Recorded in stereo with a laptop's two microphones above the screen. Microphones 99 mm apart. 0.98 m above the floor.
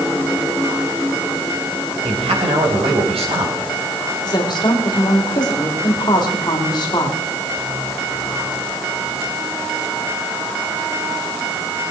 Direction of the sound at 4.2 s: 45° left (ahead or behind).